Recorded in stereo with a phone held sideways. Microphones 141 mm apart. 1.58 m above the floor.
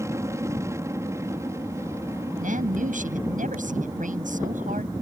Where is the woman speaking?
80° right.